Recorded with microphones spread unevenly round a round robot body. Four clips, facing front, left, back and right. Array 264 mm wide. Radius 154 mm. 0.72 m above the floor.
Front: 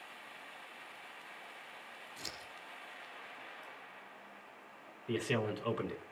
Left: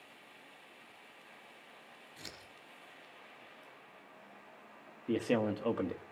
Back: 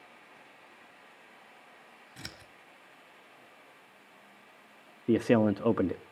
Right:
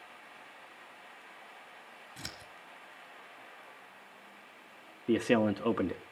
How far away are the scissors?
About 3 m.